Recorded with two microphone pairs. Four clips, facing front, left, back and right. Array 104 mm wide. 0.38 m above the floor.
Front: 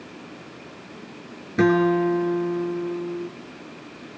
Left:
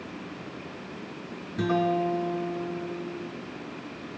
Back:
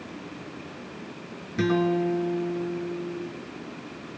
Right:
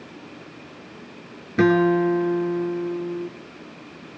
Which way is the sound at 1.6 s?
55° right.